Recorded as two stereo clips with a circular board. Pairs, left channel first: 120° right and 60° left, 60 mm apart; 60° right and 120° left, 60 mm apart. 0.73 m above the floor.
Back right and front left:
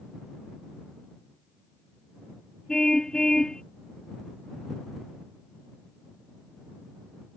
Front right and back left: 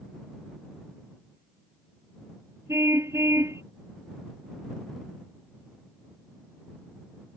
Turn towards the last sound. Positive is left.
turn(degrees=160)